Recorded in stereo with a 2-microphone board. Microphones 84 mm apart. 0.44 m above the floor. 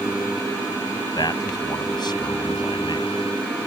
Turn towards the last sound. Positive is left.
turn(degrees=60)  # may be behind; listen again after turning